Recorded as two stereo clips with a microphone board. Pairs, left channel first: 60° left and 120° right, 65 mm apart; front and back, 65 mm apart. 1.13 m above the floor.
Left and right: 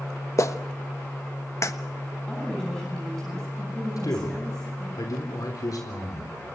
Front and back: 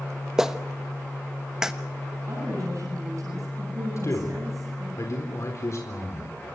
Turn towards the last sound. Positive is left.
turn(degrees=40)